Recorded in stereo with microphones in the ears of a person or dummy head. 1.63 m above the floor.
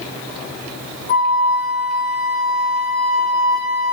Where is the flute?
45° left (ahead or behind), 1.8 m.